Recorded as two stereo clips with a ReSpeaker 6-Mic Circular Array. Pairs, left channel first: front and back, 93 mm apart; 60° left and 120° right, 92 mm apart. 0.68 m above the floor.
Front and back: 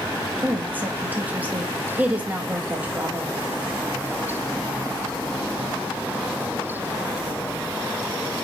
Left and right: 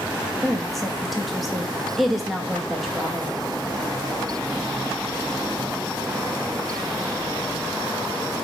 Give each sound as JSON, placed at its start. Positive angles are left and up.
{"t": 0.4, "sound": "a woman speaking", "azimuth_deg": 150, "distance_m": 0.8}